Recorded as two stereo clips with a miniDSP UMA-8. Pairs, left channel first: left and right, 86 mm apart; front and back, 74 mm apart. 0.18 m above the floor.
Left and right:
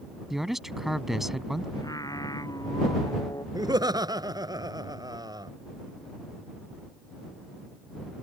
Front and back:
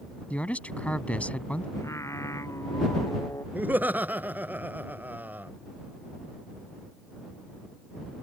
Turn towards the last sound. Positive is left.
turn(degrees=-120)